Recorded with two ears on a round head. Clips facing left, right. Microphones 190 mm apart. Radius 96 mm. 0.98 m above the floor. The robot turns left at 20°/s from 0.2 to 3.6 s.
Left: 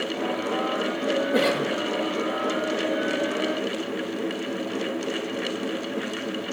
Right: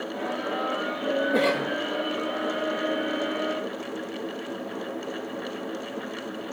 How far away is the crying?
No crying in this recording.